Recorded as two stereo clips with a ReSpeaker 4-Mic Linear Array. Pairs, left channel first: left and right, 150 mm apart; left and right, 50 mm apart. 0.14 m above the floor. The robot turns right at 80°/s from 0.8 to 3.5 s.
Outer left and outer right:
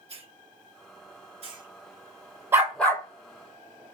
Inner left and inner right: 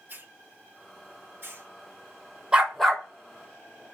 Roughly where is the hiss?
Right.